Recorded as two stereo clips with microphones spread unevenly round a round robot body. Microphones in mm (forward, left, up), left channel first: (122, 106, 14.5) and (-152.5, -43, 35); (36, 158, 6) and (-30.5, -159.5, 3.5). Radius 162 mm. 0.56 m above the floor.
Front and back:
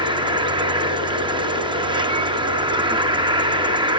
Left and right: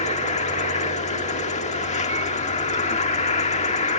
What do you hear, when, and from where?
0.0 s an insect: 135° left